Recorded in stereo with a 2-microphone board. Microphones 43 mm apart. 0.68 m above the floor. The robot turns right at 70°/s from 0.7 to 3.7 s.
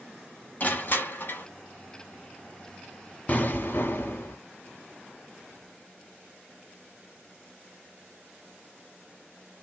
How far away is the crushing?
About 1.2 m.